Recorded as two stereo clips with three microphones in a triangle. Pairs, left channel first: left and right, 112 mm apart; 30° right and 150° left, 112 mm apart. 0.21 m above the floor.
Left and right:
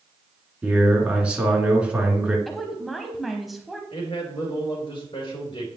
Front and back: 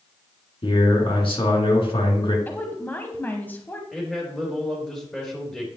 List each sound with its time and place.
0.6 s a man speaking: 10° right, 3 m
2.5 s a woman speaking: 5° right, 1.0 m
3.9 s a man speaking: 55° left, 3.5 m